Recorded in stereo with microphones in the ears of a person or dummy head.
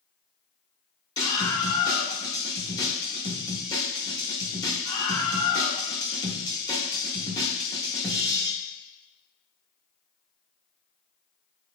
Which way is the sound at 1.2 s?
20° left (ahead or behind).